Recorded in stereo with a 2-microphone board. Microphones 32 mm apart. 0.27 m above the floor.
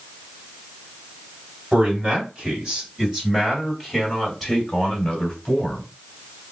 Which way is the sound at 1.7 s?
35° right (ahead or behind).